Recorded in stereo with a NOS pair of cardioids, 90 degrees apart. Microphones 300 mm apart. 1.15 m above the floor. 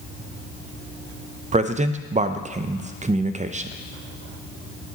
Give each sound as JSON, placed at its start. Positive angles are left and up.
{"t": 1.5, "sound": "a man speaking", "azimuth_deg": -25, "distance_m": 0.6}